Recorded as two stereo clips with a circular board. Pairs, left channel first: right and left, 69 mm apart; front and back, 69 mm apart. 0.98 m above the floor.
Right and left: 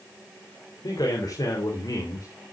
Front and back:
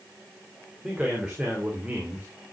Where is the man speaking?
100° right, 3 m; by 2.3 s 110° right, 2.5 m.